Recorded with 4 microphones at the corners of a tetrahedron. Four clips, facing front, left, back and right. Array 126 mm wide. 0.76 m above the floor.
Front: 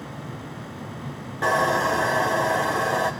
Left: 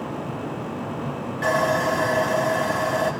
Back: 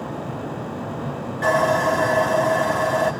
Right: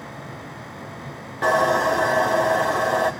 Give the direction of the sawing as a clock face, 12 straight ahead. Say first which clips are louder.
Right 3 dB, back 3 dB; 2 o'clock.